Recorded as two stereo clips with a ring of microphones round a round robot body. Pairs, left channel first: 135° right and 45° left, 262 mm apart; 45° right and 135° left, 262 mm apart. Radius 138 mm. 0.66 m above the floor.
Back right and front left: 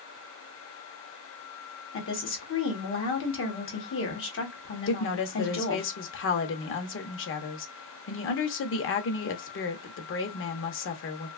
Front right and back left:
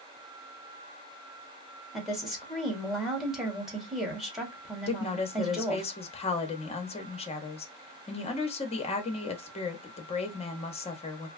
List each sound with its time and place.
1.9 s a woman speaking: 135° right, 1.4 m
4.9 s a woman speaking: 110° right, 0.8 m